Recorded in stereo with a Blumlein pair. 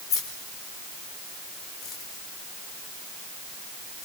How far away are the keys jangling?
About 4 m.